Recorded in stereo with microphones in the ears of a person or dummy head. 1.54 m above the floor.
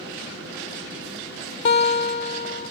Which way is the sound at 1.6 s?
30° left (ahead or behind).